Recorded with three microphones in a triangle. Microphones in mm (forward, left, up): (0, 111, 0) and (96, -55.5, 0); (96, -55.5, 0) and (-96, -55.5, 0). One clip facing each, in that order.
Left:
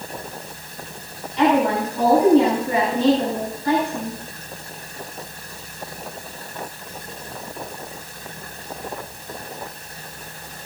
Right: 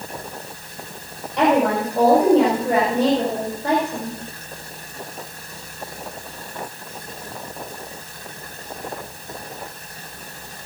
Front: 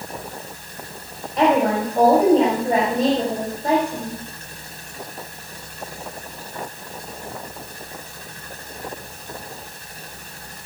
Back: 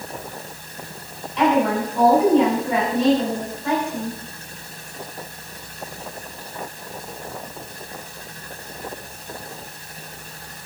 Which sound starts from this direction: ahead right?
A woman speaking, at 1.4 s.